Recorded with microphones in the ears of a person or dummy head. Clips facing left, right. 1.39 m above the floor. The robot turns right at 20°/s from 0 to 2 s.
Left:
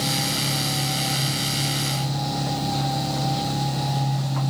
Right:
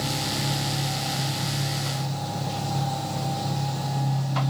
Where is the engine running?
20° right, 9 m; by 4.5 s 20° left, 9 m.